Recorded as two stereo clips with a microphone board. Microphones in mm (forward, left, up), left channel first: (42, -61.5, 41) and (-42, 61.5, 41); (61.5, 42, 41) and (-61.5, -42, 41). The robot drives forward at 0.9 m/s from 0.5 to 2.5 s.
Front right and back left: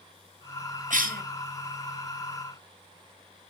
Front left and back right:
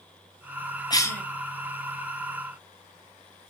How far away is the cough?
About 0.8 m.